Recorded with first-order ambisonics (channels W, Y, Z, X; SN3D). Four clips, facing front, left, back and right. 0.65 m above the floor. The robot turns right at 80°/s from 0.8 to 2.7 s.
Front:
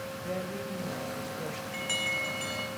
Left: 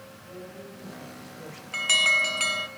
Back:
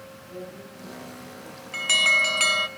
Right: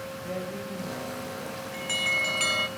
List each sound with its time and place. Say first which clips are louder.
0.2 s a woman speaking: right 7 dB, front 4 dB; 45° right, 3 m; by 1.6 s 25° left, 3 m
1.7 s an alarm: left 6 dB, back 12 dB; 125° left, 0.9 m; by 2.7 s 160° right, 0.9 m